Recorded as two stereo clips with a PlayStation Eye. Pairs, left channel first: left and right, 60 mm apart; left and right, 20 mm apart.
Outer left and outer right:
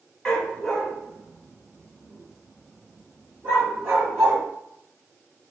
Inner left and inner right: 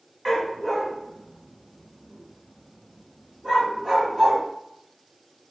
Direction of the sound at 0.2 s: 10° left (ahead or behind).